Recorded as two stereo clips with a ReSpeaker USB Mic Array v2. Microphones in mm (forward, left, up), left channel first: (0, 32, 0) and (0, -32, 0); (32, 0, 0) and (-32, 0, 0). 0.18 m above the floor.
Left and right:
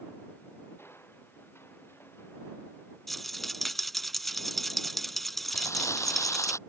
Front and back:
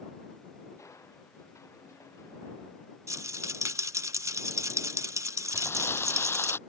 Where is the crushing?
40° left.